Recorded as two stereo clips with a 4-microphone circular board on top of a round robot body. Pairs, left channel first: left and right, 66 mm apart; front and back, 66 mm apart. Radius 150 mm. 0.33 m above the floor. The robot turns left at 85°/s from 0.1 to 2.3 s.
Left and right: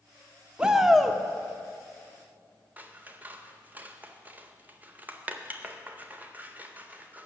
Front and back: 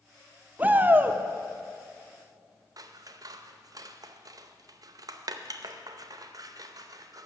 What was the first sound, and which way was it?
A shout, 150° right.